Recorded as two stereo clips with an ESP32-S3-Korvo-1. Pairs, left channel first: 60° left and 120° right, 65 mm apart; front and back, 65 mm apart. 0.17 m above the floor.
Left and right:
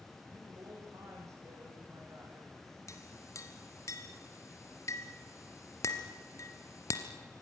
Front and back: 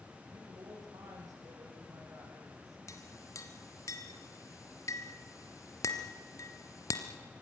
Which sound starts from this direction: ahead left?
A clink, at 2.9 s.